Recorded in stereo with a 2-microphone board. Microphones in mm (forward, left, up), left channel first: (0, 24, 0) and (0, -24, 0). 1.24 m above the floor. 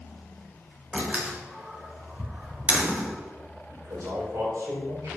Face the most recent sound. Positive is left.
turn(degrees=-65)  # may be behind; listen again after turning